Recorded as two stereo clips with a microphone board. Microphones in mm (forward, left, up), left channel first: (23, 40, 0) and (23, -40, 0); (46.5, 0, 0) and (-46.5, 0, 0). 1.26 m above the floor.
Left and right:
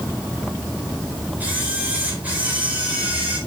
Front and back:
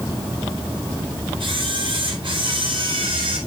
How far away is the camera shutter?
About 4.5 m.